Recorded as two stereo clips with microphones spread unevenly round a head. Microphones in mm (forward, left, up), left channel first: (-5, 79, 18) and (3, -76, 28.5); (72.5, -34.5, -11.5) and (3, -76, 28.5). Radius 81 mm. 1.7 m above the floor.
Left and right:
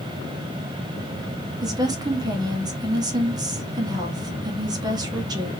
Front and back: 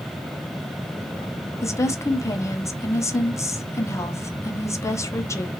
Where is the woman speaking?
20° right, 0.8 m.